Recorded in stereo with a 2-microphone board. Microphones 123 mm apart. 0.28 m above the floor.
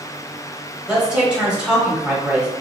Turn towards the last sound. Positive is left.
turn(degrees=-10)  # may be behind; listen again after turning